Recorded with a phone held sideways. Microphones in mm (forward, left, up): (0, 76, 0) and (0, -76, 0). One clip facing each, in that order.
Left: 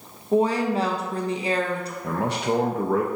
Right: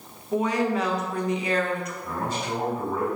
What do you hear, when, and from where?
0.3 s a woman speaking: 30° left (ahead or behind), 0.6 m
2.0 s a man speaking: 65° left (ahead or behind), 0.5 m